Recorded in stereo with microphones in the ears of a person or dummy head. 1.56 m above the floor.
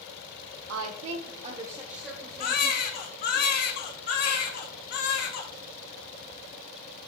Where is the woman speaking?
80° right, 0.9 m; by 3.4 s 20° left (ahead or behind), 3 m.